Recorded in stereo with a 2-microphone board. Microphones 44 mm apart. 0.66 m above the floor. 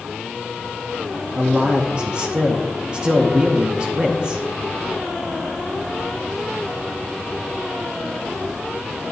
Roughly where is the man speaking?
Right.